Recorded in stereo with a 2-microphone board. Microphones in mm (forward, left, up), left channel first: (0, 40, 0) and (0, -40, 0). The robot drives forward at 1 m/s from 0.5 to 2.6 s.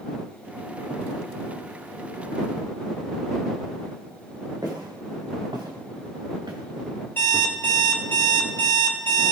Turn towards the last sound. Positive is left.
turn(degrees=25)  # may be behind; listen again after turning